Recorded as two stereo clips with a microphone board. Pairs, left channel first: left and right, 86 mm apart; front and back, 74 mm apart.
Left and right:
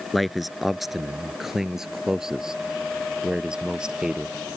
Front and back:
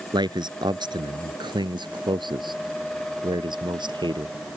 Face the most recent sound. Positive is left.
turn(degrees=-170)